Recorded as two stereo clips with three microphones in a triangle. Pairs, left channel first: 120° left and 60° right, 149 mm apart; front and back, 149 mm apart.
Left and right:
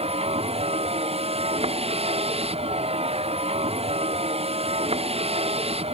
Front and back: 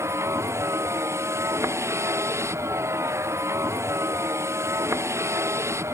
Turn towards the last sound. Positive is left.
turn(degrees=-110)